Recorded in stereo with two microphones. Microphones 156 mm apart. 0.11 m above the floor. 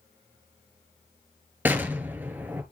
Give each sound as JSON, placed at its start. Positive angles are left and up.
{"t": 1.6, "sound": "an explosion", "side_deg": -10, "distance_m": 1.2}